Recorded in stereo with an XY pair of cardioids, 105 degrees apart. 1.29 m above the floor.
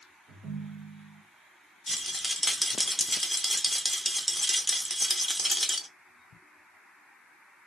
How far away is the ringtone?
About 0.9 m.